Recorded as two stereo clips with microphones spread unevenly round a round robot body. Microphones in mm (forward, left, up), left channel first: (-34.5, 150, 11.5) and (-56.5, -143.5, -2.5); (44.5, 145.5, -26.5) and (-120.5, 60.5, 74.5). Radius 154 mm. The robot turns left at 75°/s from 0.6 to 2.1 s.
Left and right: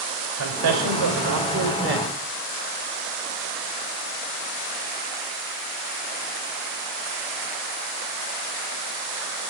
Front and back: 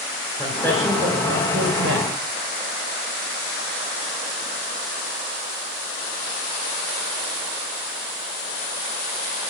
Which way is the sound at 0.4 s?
45° right.